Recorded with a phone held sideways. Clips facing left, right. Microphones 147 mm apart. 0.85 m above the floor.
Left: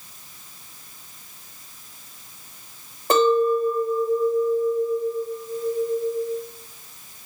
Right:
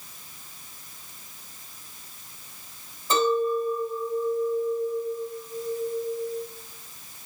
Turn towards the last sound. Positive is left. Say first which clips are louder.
# left 5 dB
turn(degrees=65)  # may be behind; listen again after turning